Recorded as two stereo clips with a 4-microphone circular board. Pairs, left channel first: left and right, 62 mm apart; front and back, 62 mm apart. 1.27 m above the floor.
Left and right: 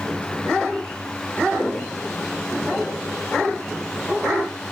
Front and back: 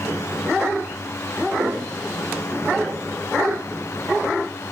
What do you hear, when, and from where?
1.6 s footsteps: 160° left, 5.5 m; by 3.6 s 125° left, 5 m